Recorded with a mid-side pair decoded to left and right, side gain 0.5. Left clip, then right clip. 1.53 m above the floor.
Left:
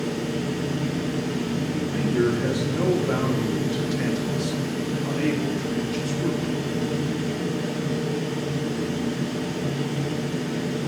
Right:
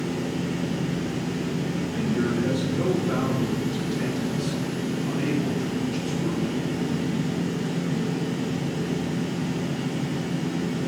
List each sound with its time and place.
0.0 s a fan: 60° left, 4 m
1.7 s a man speaking: 45° left, 2.5 m